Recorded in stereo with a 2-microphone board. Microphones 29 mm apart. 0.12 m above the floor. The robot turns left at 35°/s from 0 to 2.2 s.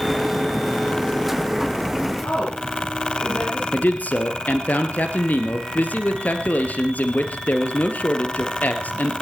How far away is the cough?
No cough in this recording.